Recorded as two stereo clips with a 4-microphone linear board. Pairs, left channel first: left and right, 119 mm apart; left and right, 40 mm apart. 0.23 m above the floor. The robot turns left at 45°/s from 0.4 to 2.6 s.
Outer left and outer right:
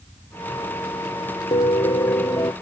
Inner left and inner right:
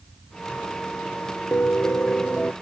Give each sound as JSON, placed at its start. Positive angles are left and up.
{"t": 1.5, "sound": "a piano", "azimuth_deg": 75}